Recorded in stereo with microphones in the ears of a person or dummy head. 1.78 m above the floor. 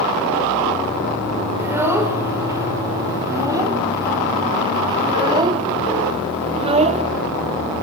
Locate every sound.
1.6 s a child speaking: 10° right (ahead or behind), 5 m; by 7.0 s 30° right (ahead or behind), 2.5 m